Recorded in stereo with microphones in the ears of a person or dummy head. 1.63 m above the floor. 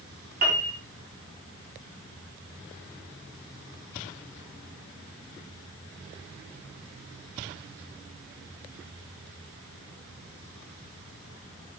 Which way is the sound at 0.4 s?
50° right (ahead or behind).